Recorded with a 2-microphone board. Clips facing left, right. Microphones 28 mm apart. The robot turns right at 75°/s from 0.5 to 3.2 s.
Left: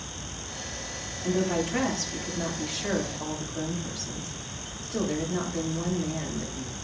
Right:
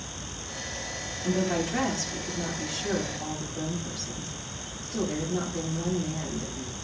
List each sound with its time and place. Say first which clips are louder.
1.2 s a woman speaking: left 1 dB; 35° right, 9.5 m; by 6.8 s 115° left, 9.5 m